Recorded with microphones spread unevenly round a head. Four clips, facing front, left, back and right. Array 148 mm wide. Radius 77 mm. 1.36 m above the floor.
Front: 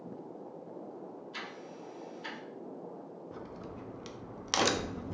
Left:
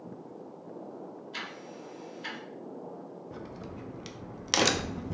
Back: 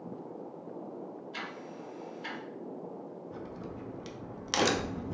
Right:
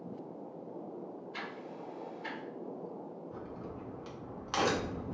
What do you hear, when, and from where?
1.3 s ticking: 70° left, 3 m
3.3 s a crack: 55° left, 0.8 m